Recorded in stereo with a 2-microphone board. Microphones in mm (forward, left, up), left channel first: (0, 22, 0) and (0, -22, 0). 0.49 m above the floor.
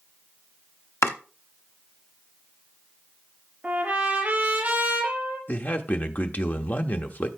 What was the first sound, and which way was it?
Chopping, 75° left (ahead or behind).